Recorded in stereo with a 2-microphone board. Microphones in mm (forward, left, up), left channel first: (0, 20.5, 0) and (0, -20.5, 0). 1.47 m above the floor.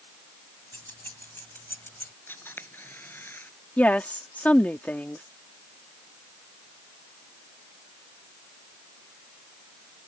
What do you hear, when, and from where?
0.7 s keys jangling: 60° left (ahead or behind); by 2.1 s 65° left (ahead or behind)
2.3 s a camera shutter: 60° left (ahead or behind)
3.8 s a woman speaking: 40° left (ahead or behind)